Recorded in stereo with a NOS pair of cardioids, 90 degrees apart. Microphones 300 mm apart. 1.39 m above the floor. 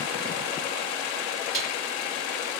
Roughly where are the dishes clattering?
Ahead right.